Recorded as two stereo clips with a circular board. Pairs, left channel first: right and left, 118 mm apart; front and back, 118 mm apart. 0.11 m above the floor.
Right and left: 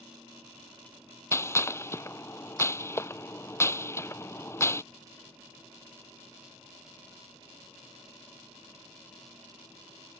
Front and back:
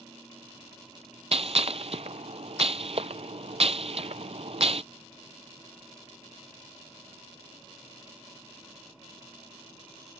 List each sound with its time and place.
1.3 s a gunshot: 155° right